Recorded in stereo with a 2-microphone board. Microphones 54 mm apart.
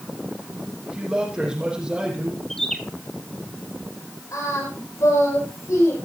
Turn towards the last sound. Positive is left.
turn(degrees=75)  # may be behind; listen again after turning